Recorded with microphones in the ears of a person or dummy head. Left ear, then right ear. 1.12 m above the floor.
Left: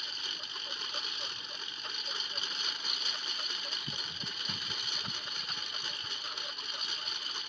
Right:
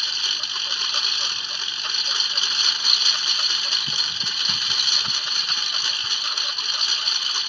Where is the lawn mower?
40° right (ahead or behind).